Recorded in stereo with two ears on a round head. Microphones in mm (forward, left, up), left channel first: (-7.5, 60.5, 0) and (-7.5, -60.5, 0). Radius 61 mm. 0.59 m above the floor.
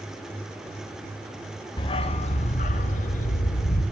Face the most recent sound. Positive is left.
turn(degrees=70)  # may be behind; listen again after turning